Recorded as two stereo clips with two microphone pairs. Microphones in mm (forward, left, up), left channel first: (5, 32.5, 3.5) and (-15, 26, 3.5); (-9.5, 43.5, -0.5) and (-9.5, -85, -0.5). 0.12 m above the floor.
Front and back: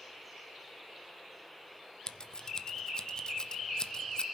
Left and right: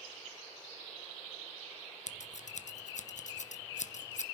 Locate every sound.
2.1 s scissors: 75° left, 0.8 m